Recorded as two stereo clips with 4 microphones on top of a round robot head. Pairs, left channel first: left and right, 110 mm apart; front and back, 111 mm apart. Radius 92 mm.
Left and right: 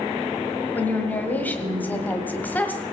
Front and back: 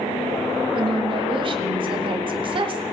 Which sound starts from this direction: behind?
A woman speaking, at 0.7 s.